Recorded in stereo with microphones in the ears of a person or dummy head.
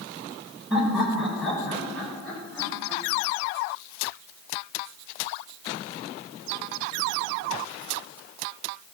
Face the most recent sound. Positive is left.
turn(degrees=10)  # may be behind; listen again after turning